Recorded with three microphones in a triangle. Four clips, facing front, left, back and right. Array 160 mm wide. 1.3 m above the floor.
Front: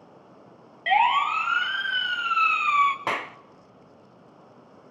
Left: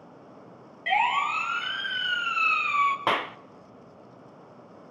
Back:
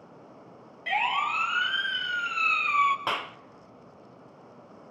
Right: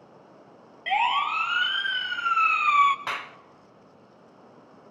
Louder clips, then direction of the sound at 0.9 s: Even, front 7 dB; 5° right.